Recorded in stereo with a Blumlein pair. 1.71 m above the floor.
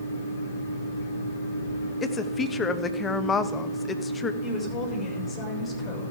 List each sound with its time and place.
0.0 s a fan: 65° left, 2.5 m
2.0 s a woman speaking: 20° left, 1.1 m
4.4 s a woman speaking: 15° left, 6.5 m